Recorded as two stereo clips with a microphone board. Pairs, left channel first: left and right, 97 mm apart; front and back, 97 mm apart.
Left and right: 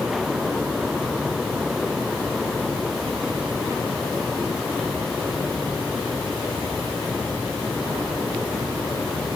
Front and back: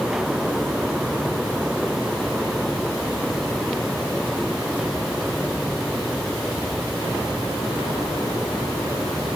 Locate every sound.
Only background noise.